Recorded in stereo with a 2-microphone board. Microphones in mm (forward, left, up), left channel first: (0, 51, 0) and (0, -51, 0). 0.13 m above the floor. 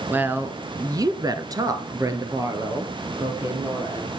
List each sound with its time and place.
0.1 s a woman speaking: 15° right (ahead or behind), 1.5 m; by 4.1 s 30° right (ahead or behind), 4.5 m